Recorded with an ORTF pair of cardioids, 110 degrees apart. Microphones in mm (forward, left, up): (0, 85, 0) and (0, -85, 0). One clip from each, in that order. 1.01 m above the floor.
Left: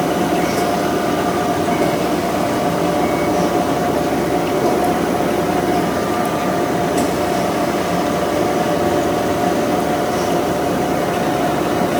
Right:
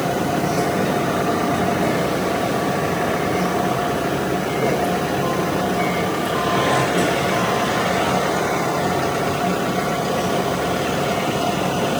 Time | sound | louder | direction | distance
0.0 | a machine running | left 4 dB | 50° left | 2.5 m